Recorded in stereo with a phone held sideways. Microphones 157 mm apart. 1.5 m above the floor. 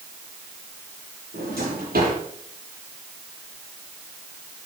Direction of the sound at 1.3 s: 75° right (ahead or behind).